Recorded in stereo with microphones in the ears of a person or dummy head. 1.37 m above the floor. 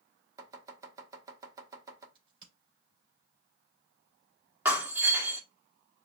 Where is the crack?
30° right (ahead or behind), 3 m.